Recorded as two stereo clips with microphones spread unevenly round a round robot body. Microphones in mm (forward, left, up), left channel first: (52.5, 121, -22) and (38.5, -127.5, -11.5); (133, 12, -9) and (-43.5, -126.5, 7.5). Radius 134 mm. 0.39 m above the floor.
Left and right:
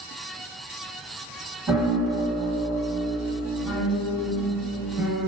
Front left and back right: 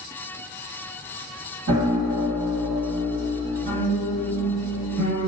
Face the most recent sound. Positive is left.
turn(degrees=-175)